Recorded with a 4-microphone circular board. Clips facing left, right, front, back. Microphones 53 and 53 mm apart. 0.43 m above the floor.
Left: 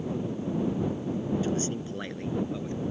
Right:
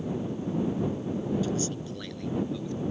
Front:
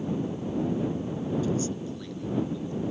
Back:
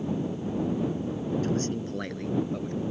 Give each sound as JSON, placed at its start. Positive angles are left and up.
{"t": 1.4, "sound": "a man speaking", "azimuth_deg": 145}